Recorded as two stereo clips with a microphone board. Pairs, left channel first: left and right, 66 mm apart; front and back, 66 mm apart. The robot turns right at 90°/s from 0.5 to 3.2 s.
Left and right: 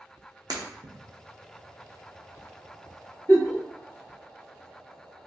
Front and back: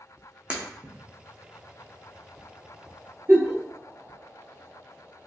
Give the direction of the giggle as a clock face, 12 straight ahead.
8 o'clock.